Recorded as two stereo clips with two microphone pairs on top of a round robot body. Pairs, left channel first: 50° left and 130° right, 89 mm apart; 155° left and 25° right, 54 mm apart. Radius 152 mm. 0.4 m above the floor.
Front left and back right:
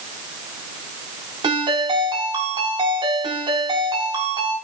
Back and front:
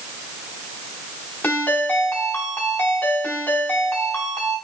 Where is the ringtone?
150° right, 4 m.